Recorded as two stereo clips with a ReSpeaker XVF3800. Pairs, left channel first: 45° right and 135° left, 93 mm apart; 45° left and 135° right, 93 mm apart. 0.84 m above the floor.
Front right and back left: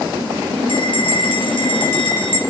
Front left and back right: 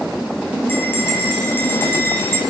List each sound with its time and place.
0.7 s a bell: 20° right, 4 m